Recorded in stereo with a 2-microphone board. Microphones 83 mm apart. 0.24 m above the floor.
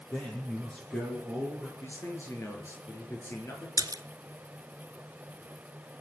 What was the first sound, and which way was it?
A man speaking, 15° left (ahead or behind).